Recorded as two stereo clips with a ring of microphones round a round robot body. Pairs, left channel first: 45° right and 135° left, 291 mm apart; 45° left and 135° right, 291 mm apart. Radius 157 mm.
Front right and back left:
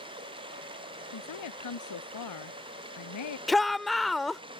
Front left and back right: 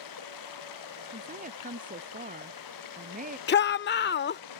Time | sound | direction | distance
0.0 | running water | 60° left | ?
1.1 | a woman speaking | 70° right | ?
3.5 | a shout | 45° left | ?